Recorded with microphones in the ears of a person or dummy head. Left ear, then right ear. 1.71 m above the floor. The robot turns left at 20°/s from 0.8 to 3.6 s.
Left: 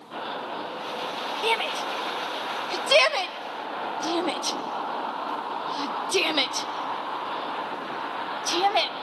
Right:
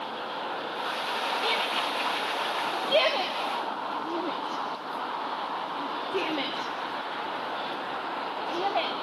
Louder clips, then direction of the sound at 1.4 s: Left 5 dB; 35° left (ahead or behind).